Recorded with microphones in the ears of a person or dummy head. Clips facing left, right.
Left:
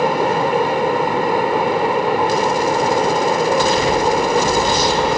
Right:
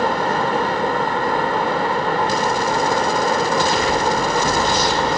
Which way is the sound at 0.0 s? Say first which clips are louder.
Left 3 dB; 15° left (ahead or behind).